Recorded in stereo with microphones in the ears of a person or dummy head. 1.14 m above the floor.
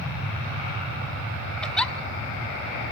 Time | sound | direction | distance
1.6 | a giggle | 5° left (ahead or behind) | 1.0 m